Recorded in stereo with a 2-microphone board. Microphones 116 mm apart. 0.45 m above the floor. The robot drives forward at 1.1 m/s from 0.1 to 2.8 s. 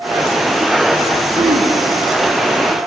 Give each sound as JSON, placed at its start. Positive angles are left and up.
{"t": 1.4, "sound": "throat clearing", "side_deg": -85, "distance_m": 7.0}